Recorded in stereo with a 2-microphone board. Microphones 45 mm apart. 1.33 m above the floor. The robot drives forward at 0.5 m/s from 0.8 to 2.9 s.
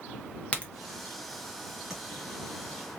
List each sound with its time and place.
0.5 s a crack: 25° left (ahead or behind), 1.0 m
1.9 s tapping: 10° right (ahead or behind), 1.7 m